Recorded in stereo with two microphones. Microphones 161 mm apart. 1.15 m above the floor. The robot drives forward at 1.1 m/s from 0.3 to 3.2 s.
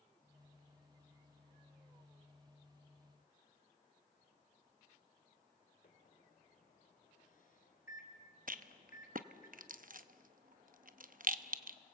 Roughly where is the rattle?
Right.